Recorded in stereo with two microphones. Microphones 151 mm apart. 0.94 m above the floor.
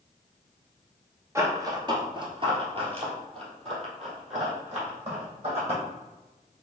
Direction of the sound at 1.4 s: 20° right (ahead or behind).